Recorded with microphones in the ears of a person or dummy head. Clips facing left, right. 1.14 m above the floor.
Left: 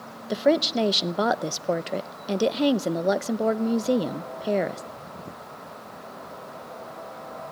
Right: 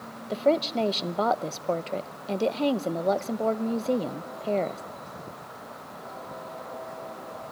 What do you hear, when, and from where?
0.3 s a woman speaking: 20° left (ahead or behind), 0.5 m